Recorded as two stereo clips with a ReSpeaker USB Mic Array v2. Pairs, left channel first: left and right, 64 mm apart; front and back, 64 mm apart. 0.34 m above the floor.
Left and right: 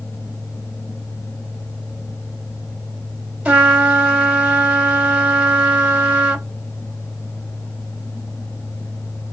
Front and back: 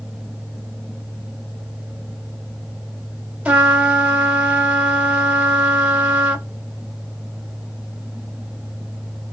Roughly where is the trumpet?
Behind right.